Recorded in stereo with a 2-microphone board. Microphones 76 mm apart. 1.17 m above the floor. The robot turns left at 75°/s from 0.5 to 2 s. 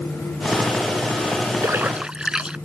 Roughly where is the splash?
Right.